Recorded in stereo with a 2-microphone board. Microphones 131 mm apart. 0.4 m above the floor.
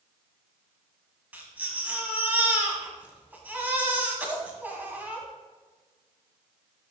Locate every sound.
1.3 s a baby crying: 15° right (ahead or behind), 1.5 m